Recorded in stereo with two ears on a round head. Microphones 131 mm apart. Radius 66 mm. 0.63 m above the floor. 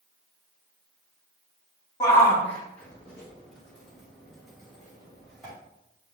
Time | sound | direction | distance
2.0 | a shout | 20° left (ahead or behind) | 0.7 m